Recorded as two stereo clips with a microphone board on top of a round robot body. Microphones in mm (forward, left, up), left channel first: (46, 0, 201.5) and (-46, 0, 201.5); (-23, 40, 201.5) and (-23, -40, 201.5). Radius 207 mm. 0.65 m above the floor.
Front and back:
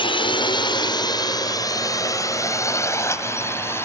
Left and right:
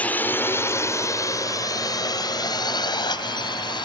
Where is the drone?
20° left; by 3.9 s 65° left.